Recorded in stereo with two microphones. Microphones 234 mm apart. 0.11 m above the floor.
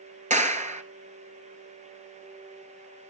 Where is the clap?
30° right (ahead or behind), 1.3 m.